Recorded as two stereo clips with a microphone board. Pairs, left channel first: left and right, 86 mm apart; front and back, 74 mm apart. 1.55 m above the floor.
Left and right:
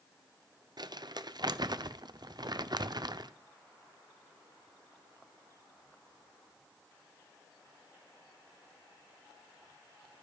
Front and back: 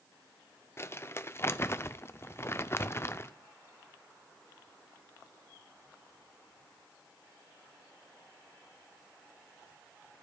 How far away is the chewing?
I don't hear chewing.